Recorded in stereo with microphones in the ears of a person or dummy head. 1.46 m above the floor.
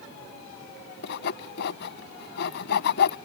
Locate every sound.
1.0 s sawing: 70° left (ahead or behind)